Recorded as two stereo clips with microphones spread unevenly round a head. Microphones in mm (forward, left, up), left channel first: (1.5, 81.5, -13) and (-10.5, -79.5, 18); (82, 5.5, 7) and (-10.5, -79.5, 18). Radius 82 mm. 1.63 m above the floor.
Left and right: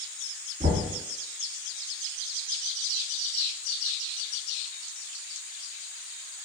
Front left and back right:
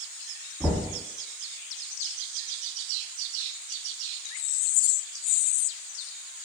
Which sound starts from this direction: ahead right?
Knocking, at 0.6 s.